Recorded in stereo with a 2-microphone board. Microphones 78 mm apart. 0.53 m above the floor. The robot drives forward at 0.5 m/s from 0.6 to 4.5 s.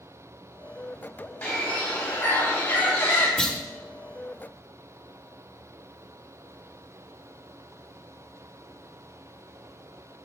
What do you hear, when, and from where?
1.4 s a bird: 20° left (ahead or behind), 3.5 m; by 3.3 s 30° left (ahead or behind), 2.5 m
3.4 s a clunk: 10° left (ahead or behind), 0.9 m